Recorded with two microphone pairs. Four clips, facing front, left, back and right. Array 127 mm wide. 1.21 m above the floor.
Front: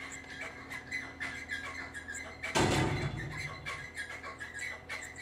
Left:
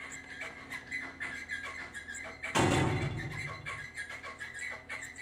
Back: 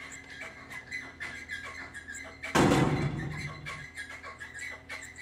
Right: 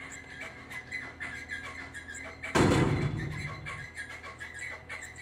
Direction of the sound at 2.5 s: 160° right.